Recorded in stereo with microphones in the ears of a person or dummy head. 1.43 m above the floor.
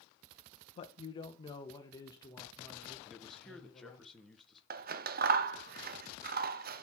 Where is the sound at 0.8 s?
30° left (ahead or behind), 0.7 m; by 4.0 s 15° left (ahead or behind), 2.5 m.